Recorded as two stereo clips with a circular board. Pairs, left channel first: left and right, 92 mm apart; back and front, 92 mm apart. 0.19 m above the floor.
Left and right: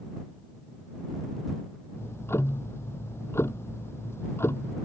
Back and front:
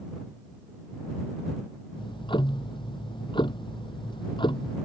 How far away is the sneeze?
I don't hear a sneeze.